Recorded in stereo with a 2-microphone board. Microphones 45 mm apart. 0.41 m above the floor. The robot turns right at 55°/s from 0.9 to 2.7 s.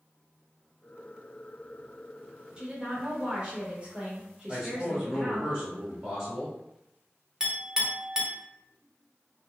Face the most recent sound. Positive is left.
turn(degrees=-15)  # may be behind; listen again after turning